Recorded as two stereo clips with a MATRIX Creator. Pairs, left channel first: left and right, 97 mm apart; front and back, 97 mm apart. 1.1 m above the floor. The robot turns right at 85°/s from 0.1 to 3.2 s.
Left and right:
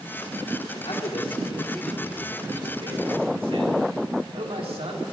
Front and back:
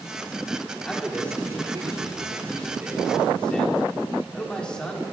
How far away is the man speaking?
About 2.5 m.